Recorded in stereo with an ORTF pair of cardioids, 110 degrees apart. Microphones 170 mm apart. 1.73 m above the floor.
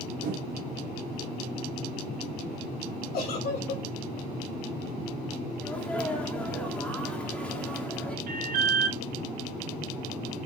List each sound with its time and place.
0.2 s a whoosh: 55° right, 2 m
3.1 s a giggle: 65° left, 2.5 m
5.6 s a sneeze: 10° left, 1.2 m
8.3 s an alarm: 65° right, 3 m